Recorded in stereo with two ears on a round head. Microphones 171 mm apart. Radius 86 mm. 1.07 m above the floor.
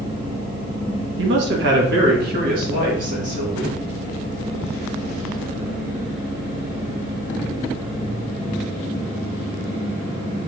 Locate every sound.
1.2 s a man speaking: 65° right (ahead or behind), 1.1 m; by 3.8 s 40° right (ahead or behind), 2.5 m